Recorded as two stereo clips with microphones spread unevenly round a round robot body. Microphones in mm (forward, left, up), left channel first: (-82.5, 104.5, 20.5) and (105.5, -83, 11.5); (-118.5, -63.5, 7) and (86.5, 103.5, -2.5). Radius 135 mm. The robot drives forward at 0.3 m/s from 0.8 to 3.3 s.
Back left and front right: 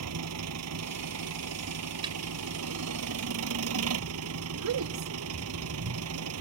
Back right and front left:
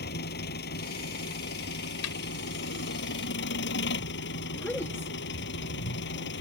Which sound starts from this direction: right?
An engine running, at 0.0 s.